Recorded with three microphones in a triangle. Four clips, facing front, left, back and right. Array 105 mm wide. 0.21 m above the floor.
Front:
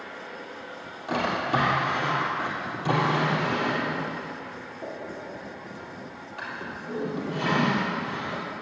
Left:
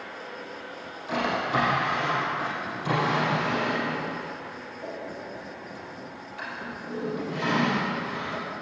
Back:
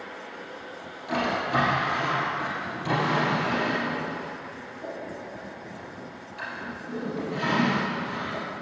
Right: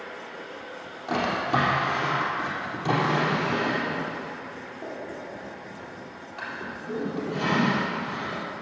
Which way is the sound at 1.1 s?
60° right.